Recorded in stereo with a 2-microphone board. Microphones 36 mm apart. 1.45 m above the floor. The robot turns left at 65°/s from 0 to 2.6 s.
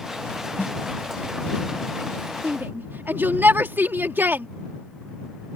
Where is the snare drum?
60° left (ahead or behind); by 0.8 s 70° left (ahead or behind).